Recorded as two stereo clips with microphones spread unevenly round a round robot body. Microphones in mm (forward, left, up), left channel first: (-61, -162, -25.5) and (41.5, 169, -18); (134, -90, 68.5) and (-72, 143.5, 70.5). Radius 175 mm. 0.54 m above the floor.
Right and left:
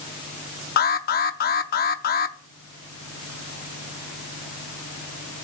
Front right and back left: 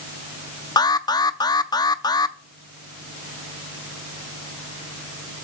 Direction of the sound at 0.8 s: 110° right.